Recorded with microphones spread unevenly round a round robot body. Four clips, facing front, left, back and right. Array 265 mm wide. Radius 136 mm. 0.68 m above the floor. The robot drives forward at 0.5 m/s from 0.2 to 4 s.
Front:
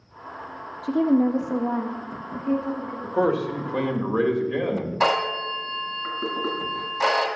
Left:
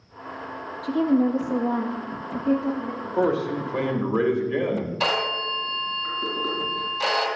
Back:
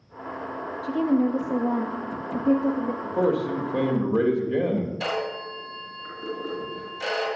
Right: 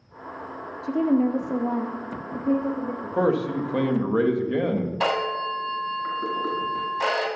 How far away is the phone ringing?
About 2.5 m.